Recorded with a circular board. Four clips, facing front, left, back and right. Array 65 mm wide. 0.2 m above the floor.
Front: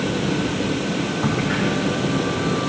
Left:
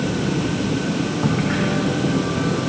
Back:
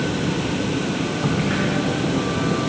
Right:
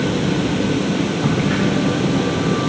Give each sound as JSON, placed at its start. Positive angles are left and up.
{"t": 1.2, "sound": "a crack", "azimuth_deg": 55, "distance_m": 8.0}